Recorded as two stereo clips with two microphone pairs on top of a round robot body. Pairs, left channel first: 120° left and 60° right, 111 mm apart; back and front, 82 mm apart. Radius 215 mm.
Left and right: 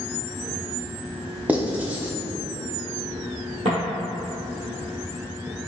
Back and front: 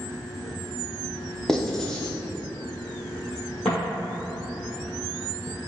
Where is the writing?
110° right, 1.0 m.